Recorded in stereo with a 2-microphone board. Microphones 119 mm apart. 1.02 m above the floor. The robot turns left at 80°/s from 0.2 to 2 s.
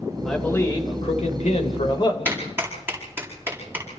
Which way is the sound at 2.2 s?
20° right (ahead or behind).